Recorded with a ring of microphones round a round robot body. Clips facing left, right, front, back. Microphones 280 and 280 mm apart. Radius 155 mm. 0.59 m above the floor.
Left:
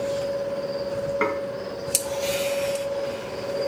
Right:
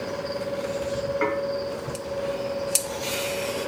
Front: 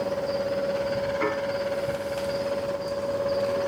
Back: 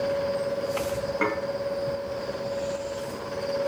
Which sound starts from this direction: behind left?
Dishes clattering, at 1.2 s.